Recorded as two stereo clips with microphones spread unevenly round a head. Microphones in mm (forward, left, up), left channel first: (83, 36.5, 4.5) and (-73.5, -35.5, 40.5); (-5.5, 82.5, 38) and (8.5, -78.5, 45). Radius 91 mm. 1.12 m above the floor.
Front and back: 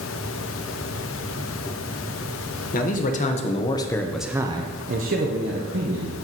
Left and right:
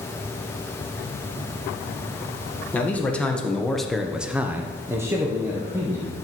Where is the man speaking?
15° left, 1.3 m; by 6.1 s 160° right, 1.4 m.